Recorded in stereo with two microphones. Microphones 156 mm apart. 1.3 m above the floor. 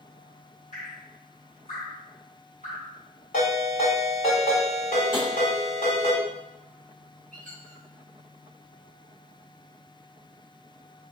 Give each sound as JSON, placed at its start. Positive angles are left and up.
{"t": 0.7, "sound": "dripping", "side_deg": 55, "distance_m": 1.3}
{"t": 3.3, "sound": "a ringtone", "side_deg": 65, "distance_m": 1.7}
{"t": 5.1, "sound": "tapping", "side_deg": 65, "distance_m": 1.1}
{"t": 7.3, "sound": "a squeak", "side_deg": 5, "distance_m": 1.1}